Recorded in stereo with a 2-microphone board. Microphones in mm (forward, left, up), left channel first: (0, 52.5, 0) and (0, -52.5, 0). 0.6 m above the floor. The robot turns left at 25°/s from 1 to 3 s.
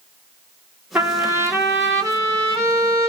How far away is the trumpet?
About 1.5 m.